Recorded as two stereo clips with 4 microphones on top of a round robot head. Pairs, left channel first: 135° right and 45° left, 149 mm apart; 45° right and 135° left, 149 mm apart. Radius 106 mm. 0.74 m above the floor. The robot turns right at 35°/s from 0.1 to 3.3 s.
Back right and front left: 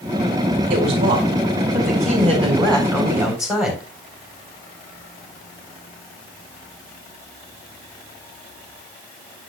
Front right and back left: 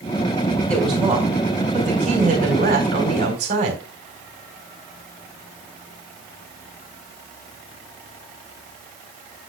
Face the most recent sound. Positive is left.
turn(degrees=130)